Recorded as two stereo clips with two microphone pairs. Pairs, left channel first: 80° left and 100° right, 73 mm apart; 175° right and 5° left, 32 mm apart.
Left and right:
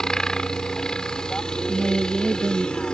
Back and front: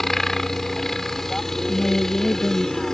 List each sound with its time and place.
0.0 s a helicopter: 135° left; by 2.9 s 140° left
1.7 s a woman speaking: 155° right